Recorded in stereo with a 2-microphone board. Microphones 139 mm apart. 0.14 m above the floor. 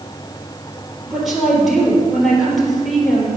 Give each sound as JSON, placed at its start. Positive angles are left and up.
{"t": 1.1, "sound": "a woman speaking", "side_deg": 0, "distance_m": 3.5}